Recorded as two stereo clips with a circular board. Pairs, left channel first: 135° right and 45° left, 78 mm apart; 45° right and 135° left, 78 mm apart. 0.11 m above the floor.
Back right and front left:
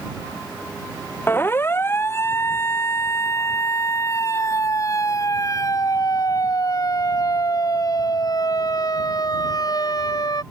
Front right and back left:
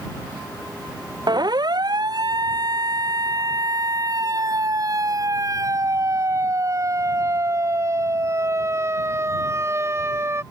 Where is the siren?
160° left; by 10.4 s 170° right.